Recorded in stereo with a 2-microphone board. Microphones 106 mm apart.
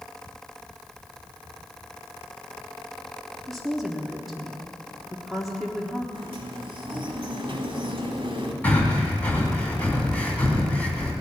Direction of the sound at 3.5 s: Centre (ahead or behind).